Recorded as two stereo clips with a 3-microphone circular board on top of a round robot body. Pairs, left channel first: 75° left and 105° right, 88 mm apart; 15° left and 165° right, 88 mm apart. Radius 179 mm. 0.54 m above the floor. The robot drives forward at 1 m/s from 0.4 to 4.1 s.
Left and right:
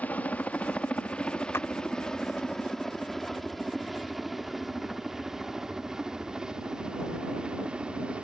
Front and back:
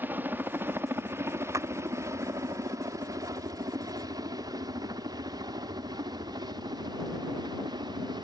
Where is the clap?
140° left.